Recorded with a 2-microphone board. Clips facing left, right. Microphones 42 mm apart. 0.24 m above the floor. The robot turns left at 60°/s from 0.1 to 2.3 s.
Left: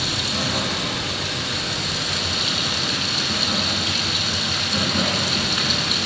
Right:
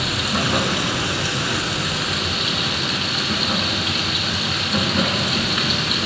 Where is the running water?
35° right, 1.3 m; by 6.1 s 165° right, 1.3 m.